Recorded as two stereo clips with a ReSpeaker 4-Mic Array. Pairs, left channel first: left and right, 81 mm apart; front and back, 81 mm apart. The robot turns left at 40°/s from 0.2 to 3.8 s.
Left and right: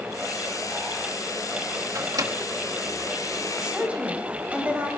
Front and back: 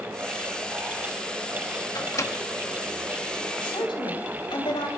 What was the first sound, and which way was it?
A microwave, 40° right.